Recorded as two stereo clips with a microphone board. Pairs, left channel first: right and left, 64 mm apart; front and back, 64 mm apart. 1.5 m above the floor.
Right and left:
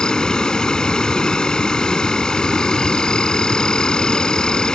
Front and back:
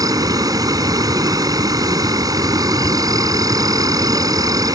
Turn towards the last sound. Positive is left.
turn(degrees=-170)